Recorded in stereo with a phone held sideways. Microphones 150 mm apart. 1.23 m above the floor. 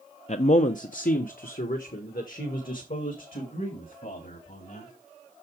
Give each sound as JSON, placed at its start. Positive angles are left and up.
{"t": 0.3, "sound": "a man speaking", "side_deg": 50, "distance_m": 0.6}